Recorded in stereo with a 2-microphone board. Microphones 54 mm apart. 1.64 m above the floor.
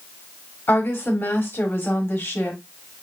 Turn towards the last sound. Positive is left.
turn(degrees=45)  # may be behind; listen again after turning